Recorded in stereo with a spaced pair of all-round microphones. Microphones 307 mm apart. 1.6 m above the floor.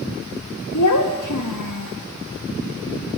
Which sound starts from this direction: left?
A child speaking, at 0.7 s.